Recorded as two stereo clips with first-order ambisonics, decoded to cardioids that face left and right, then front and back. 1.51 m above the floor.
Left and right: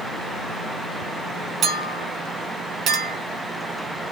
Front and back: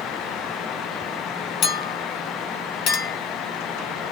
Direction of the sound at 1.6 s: 35° right.